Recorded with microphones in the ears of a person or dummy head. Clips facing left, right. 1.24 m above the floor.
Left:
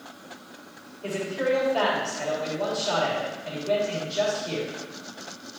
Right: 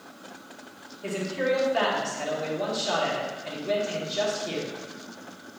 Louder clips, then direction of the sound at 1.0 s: Left 1 dB; 15° right (ahead or behind).